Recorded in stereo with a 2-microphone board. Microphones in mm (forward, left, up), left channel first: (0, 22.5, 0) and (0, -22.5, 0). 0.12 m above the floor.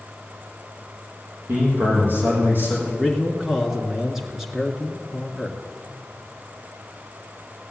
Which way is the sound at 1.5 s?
50° right (ahead or behind).